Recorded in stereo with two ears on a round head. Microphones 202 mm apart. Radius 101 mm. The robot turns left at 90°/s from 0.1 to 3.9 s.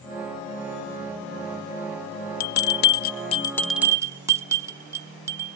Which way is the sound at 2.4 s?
40° left (ahead or behind).